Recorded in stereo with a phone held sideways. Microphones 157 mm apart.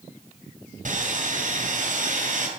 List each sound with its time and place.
0.8 s sawing: 60° right (ahead or behind), 2.5 m